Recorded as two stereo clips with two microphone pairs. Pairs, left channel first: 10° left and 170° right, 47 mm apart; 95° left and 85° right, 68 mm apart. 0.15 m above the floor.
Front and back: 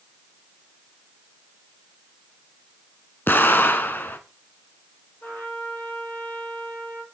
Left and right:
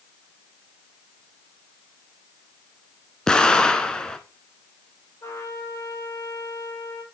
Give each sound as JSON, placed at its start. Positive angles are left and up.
{"t": 3.3, "sound": "an explosion", "azimuth_deg": 20, "distance_m": 0.9}
{"t": 5.2, "sound": "a trumpet", "azimuth_deg": 60, "distance_m": 4.0}